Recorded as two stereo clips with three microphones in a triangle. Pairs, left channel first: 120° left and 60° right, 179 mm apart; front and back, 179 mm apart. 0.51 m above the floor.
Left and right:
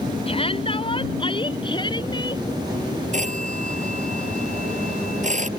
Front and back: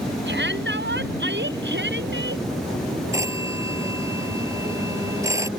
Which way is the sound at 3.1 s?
105° right.